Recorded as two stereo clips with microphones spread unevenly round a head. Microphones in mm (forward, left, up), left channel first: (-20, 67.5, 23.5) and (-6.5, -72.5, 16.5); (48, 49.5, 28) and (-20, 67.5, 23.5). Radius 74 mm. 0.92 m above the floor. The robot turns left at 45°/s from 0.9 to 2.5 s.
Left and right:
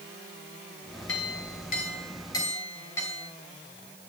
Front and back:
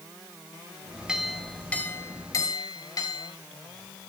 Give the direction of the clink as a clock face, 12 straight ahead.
9 o'clock.